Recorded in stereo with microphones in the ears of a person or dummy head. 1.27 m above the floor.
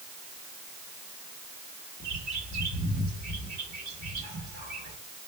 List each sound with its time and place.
2.0 s a bird: 45° right (ahead or behind), 1.4 m